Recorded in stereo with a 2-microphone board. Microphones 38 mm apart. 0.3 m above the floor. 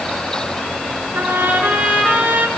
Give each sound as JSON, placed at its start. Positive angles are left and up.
{"t": 1.1, "sound": "a trumpet", "side_deg": -55, "distance_m": 4.0}